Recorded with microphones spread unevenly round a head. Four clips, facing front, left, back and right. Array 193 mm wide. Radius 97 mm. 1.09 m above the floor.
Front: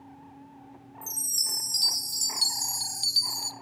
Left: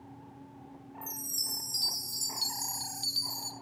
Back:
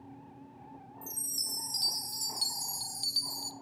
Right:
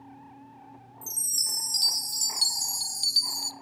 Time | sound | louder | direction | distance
1.0 | a chime | left 2 dB, front 3 dB | 170° right | 0.7 m